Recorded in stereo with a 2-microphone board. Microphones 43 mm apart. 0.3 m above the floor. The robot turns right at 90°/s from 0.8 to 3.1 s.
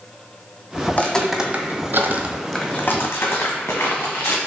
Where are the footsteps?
50° left (ahead or behind), 0.8 m; by 4.4 s 80° left, 1.5 m.